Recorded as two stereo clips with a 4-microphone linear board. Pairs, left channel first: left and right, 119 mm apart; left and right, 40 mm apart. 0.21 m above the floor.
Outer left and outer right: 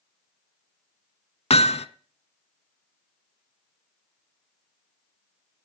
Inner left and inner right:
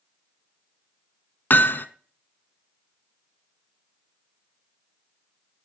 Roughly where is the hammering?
Left.